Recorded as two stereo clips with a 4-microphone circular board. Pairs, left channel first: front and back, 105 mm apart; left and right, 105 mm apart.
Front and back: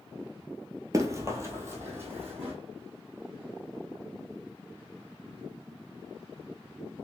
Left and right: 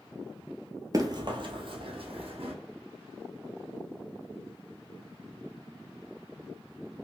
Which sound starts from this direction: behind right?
Running footsteps, at 0.9 s.